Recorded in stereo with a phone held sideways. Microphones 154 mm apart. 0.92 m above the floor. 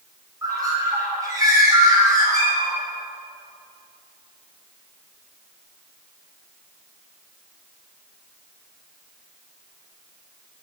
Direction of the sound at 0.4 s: 25° right (ahead or behind).